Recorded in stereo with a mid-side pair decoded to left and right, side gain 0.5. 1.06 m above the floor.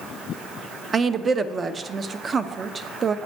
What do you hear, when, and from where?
0.9 s a woman speaking: 40° right, 0.6 m